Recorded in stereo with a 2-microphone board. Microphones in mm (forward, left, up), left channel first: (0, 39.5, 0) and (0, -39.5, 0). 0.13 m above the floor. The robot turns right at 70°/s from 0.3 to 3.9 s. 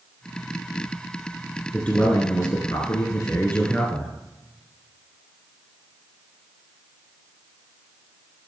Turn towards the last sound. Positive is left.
turn(degrees=165)